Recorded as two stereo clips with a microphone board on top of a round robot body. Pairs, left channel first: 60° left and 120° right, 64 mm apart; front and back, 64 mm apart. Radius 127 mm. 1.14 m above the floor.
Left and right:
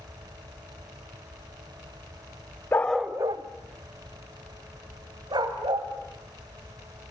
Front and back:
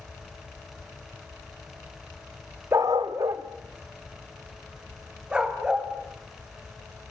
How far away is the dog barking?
About 0.8 m.